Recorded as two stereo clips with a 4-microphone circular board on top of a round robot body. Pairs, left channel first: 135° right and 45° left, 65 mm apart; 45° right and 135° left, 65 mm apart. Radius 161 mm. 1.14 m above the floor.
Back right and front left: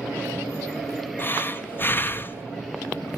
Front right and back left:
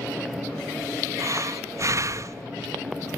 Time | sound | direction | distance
1.2 | breathing | 170° left | 1.3 m